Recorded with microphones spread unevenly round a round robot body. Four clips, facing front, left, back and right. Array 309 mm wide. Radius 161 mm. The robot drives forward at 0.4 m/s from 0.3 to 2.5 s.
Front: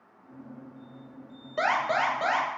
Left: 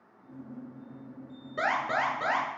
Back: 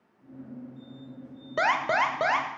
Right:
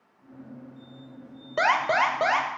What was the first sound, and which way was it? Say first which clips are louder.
An alarm: right 6 dB, back 1 dB; 160° right.